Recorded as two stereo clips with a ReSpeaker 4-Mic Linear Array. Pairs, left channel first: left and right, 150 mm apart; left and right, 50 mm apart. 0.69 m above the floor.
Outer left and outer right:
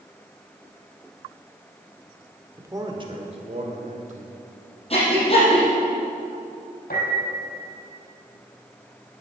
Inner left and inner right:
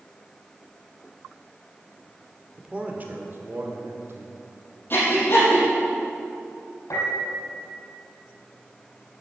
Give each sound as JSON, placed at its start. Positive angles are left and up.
{"t": 2.6, "sound": "a man speaking", "side_deg": -20, "distance_m": 1.7}
{"t": 4.9, "sound": "breathing", "side_deg": 40, "distance_m": 5.0}
{"t": 6.9, "sound": "a piano", "side_deg": 75, "distance_m": 4.5}